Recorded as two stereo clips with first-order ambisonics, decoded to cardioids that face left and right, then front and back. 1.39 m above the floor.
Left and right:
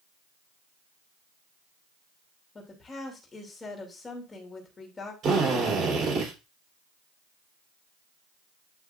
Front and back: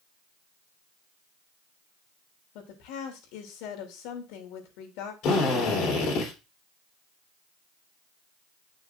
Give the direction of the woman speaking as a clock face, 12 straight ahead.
12 o'clock.